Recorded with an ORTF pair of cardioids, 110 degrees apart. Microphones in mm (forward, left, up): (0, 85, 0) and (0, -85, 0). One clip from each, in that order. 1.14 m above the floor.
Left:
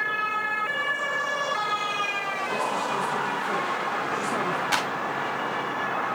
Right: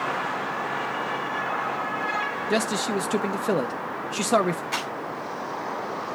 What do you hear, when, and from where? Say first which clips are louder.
2.5 s a man speaking: right 2 dB; 65° right, 0.8 m
4.7 s a clap: left 4 dB; 60° left, 6 m